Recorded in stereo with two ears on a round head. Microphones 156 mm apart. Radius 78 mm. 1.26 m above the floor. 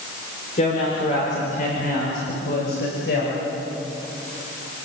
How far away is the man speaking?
About 5 m.